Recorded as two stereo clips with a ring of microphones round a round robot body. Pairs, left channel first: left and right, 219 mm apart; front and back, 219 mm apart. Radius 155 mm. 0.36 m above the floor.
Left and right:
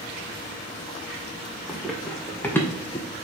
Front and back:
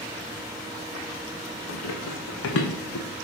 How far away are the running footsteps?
About 1.9 m.